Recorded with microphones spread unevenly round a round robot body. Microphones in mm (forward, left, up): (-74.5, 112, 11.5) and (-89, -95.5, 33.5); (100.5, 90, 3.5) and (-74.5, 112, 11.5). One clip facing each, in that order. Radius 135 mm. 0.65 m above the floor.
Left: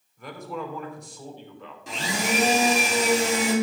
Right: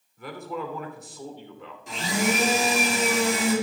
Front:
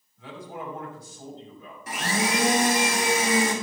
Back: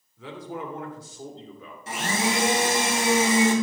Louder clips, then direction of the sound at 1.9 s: Right 2 dB, even; 110° left.